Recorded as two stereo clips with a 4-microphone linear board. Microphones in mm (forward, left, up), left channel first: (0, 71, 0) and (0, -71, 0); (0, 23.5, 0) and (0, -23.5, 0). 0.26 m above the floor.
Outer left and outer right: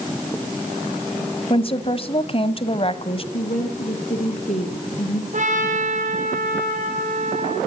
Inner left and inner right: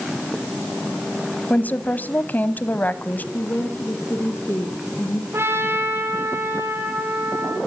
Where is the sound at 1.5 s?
40° left (ahead or behind), 1.2 m.